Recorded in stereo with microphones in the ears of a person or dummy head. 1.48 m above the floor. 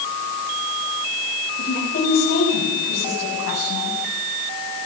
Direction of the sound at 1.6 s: 40° left (ahead or behind).